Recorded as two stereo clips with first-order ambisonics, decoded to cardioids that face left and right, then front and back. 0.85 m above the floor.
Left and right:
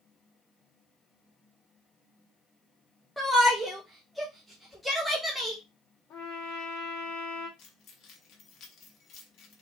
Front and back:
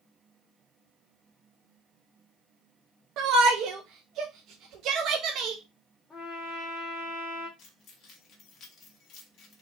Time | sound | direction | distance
3.2 | a shout | straight behind | 0.5 m
6.1 | a trumpet | 70° left | 1.3 m
7.6 | keys jangling | 50° left | 1.1 m